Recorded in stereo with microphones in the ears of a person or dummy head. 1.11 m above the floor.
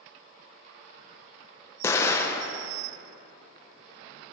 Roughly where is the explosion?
Centre.